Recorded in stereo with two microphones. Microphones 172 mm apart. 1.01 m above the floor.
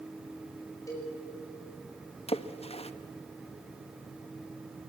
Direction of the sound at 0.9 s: 20° left (ahead or behind).